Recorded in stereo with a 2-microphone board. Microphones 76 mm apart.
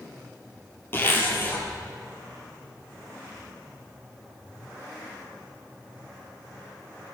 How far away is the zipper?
About 5 m.